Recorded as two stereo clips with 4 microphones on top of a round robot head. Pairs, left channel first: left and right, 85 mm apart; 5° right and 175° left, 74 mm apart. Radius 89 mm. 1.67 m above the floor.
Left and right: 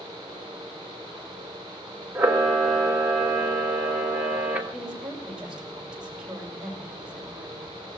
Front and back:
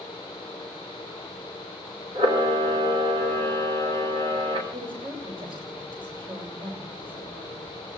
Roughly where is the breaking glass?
No breaking glass in this recording.